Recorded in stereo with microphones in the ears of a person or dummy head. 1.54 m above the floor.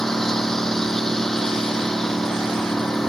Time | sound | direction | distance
0.0 | a lawn mower | 5° left (ahead or behind) | ?